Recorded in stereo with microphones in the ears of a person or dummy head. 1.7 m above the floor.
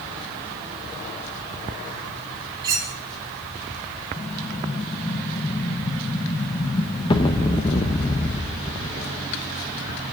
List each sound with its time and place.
2.6 s cutlery clinking: 20° right (ahead or behind), 3.5 m
4.2 s an explosion: 20° left (ahead or behind), 1.1 m